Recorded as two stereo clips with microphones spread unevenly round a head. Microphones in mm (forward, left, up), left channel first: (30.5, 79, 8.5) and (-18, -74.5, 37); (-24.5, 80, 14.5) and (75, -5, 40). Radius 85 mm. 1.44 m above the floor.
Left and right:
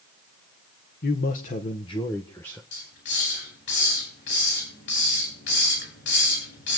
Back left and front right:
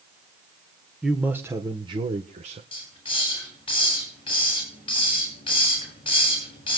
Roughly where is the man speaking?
Ahead left.